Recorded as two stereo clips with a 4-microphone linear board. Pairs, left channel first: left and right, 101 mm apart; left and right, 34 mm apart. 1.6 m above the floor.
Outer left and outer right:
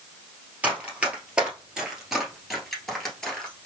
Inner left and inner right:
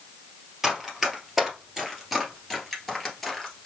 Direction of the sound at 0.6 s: 15° right (ahead or behind).